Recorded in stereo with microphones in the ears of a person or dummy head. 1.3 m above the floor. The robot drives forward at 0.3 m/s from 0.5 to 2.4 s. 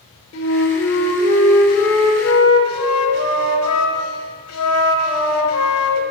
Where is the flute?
65° left (ahead or behind), 1.3 m; by 6.0 s 80° left, 1.2 m.